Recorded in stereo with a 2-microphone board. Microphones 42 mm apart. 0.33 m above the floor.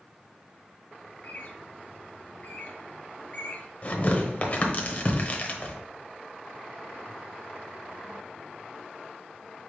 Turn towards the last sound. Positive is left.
turn(degrees=40)  # may be behind; listen again after turning